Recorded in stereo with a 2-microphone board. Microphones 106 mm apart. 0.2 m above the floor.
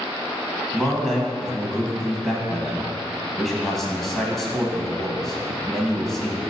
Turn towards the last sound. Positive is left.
turn(degrees=0)  # may be behind; listen again after turning